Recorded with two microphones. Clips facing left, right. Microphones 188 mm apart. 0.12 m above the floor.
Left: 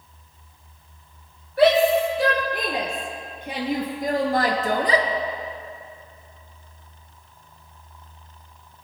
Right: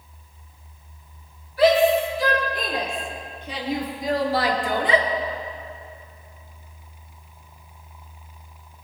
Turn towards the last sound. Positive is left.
turn(degrees=35)  # may be behind; listen again after turning